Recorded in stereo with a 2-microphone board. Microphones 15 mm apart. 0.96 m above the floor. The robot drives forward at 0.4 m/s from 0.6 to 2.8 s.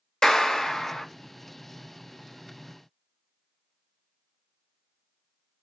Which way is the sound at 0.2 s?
60° left (ahead or behind).